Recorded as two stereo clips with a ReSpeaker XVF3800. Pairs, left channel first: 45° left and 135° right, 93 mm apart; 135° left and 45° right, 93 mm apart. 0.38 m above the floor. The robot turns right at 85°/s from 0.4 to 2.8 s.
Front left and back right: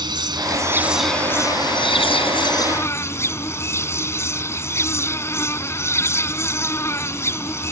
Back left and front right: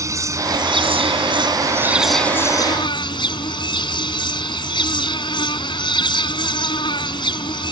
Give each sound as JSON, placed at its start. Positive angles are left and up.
{"t": 0.0, "sound": "an insect", "azimuth_deg": -100}